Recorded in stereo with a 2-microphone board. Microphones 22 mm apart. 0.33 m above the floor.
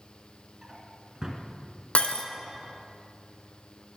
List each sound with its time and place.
0.6 s a drawer: 30° right (ahead or behind), 2.5 m
1.9 s breaking glass: 65° left (ahead or behind), 1.7 m